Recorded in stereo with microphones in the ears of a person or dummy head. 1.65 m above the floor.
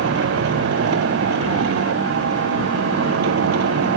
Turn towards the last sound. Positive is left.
turn(degrees=-70)  # may be behind; listen again after turning